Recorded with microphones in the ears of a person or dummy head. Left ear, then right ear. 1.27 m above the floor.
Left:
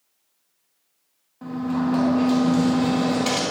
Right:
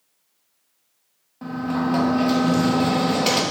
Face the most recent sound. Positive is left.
turn(degrees=-15)  # may be behind; listen again after turning